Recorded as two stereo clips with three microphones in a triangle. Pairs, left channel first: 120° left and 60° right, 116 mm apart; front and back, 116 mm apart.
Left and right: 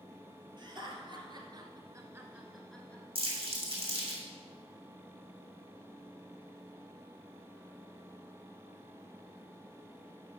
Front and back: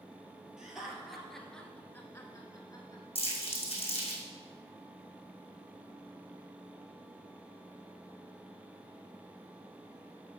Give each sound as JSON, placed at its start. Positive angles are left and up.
{"t": 0.6, "sound": "laughter", "azimuth_deg": -95, "distance_m": 2.5}
{"t": 3.1, "sound": "crumpling", "azimuth_deg": -30, "distance_m": 3.0}